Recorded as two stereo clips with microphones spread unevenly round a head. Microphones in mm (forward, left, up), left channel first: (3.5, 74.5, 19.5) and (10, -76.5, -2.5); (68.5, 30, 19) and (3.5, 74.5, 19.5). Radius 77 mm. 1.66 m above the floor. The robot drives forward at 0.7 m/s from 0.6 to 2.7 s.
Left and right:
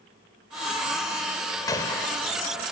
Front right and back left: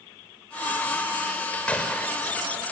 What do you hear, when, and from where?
1.7 s a gunshot: 35° left, 2 m; by 2.5 s 50° left, 1.8 m